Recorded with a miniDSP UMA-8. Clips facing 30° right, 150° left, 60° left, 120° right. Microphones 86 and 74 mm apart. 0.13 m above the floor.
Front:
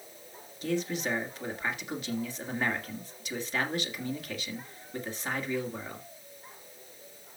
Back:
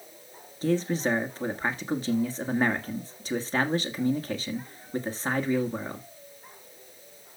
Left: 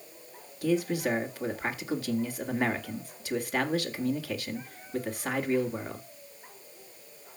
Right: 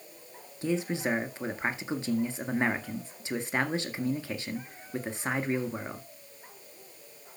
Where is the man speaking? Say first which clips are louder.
Back 5 dB, left 2 dB; 175° right, 1.6 m.